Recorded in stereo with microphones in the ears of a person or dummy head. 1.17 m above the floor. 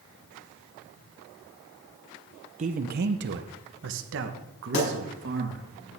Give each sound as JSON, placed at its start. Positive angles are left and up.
{"t": 2.6, "sound": "a man speaking", "side_deg": -35, "distance_m": 0.9}
{"t": 4.7, "sound": "a pop", "side_deg": 45, "distance_m": 5.5}